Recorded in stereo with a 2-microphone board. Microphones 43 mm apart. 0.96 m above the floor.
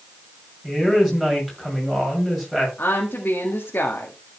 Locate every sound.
0.6 s a woman speaking: 5° right (ahead or behind), 6.5 m
2.8 s a woman speaking: 55° left (ahead or behind), 1.8 m